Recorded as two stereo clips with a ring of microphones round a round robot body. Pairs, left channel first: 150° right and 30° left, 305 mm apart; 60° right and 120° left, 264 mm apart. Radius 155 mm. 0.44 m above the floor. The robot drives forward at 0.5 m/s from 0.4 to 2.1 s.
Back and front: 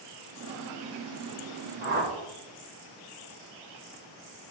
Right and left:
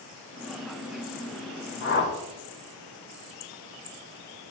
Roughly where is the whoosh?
Ahead.